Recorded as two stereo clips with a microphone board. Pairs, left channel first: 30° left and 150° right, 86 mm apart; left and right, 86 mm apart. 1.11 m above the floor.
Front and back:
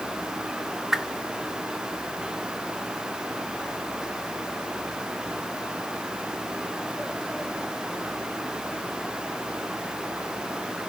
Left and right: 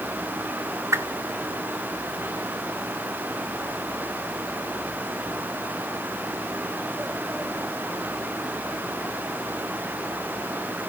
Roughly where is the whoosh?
Ahead right.